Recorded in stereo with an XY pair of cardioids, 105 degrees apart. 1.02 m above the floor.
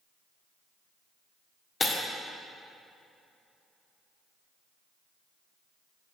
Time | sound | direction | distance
1.8 | breaking glass | 35° left | 1.4 m